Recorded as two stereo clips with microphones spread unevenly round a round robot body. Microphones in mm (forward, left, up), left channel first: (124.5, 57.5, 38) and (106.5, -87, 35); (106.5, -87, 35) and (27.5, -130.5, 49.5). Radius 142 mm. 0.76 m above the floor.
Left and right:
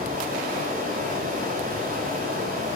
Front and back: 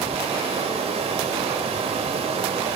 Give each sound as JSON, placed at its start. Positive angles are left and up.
{"t": 0.0, "sound": "running water", "azimuth_deg": -150, "distance_m": 1.6}